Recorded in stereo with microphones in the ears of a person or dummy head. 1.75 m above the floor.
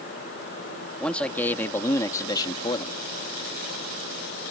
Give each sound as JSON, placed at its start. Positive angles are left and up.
{"t": 1.0, "sound": "a man speaking", "side_deg": 5}